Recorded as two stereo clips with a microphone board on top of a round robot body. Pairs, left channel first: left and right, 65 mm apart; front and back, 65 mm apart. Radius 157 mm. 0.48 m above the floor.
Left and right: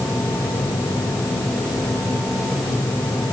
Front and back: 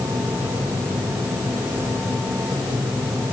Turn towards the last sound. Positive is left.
No sound to turn to.